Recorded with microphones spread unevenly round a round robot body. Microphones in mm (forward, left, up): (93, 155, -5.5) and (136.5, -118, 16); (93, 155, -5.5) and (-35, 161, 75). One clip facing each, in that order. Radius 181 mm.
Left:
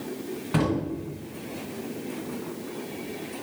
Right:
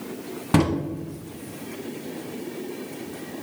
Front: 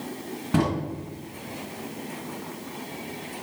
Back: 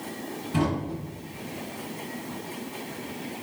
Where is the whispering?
No whispering in this recording.